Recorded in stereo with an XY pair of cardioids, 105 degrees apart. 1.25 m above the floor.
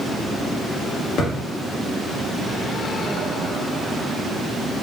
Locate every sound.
1.2 s a thud: 65° left, 1.8 m